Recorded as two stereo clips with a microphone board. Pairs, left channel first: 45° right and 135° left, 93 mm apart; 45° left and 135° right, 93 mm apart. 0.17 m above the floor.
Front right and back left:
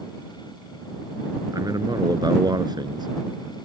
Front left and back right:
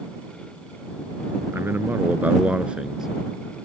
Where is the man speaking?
165° left; by 3.1 s 145° left.